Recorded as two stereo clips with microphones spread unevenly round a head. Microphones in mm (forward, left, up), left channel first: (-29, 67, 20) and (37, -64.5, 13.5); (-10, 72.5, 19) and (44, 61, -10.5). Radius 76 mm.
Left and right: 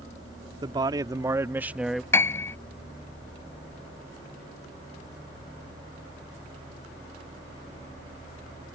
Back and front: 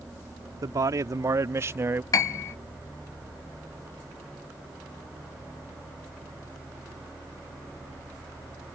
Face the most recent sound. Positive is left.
turn(degrees=-170)